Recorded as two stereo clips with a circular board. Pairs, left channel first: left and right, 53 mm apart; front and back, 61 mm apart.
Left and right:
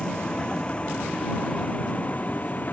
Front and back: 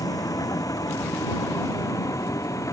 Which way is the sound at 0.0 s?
15° left.